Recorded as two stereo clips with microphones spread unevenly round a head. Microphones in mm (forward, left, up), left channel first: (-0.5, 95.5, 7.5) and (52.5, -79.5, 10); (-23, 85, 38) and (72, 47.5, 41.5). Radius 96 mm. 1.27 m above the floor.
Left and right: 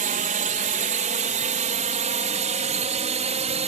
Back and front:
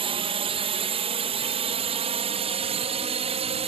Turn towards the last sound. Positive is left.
turn(degrees=-20)